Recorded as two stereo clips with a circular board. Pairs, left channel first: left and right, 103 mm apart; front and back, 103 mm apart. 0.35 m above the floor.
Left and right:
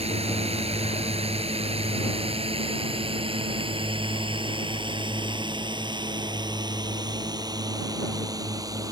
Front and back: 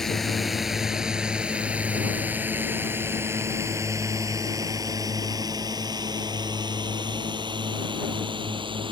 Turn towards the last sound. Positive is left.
turn(degrees=-145)